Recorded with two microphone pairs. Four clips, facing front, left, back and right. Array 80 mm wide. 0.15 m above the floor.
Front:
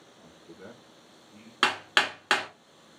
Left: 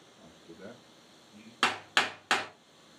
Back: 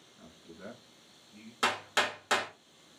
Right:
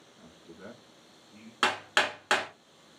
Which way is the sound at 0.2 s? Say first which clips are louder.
Even, even; 145° right.